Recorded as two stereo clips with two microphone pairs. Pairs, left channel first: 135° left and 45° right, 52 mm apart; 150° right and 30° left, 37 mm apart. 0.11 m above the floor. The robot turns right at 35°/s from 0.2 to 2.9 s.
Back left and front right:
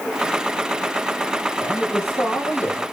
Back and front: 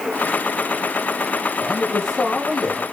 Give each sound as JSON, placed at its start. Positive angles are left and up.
{"t": 1.6, "sound": "a man speaking", "azimuth_deg": 105, "distance_m": 4.0}